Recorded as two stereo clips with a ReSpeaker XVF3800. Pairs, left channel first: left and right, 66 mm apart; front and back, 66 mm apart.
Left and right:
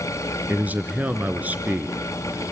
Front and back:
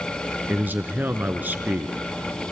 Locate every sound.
0.5 s a man speaking: 135° right, 1.4 m